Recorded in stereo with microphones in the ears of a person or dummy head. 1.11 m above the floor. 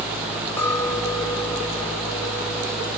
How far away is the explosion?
No explosion in this recording.